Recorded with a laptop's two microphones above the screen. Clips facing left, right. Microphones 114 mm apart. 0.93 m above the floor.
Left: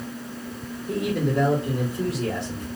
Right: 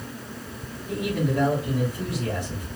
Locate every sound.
0.9 s a man speaking: 15° left (ahead or behind), 3 m